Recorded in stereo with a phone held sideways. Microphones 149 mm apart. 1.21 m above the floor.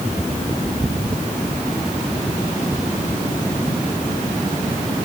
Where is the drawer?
I don't hear a drawer.